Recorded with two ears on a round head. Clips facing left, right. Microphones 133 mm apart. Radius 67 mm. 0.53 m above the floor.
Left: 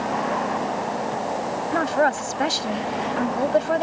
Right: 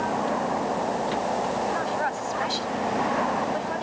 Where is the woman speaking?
65° left (ahead or behind).